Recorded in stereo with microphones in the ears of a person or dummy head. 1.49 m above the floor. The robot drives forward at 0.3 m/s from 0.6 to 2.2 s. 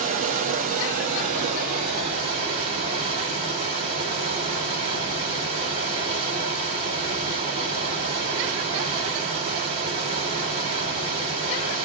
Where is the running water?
45° right (ahead or behind), 1.1 m; by 11.8 s 30° right (ahead or behind), 1.5 m.